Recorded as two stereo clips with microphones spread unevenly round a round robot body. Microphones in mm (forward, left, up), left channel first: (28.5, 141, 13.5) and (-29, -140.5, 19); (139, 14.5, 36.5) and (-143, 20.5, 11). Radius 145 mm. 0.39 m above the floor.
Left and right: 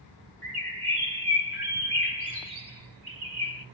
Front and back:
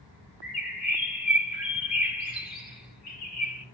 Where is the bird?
65° right, 2.5 m.